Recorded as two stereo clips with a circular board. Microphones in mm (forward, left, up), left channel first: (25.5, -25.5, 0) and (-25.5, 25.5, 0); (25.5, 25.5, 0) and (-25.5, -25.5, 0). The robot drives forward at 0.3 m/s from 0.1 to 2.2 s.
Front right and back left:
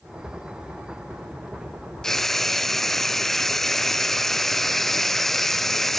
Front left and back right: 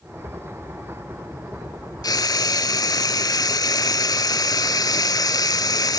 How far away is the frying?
About 0.6 m.